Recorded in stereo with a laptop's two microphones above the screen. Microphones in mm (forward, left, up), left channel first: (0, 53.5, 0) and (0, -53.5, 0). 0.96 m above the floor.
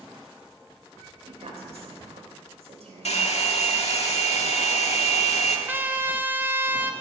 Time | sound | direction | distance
1.2 | a woman speaking | 80° right | 3.5 m
3.0 | a hair dryer | 90° left | 1.3 m
5.7 | a trumpet | 20° right (ahead or behind) | 0.6 m